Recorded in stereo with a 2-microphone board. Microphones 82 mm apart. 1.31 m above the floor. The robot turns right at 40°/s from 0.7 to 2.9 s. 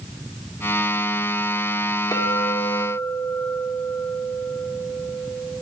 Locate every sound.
2.1 s a clink: 135° left, 3 m; by 5.5 s 165° left, 3 m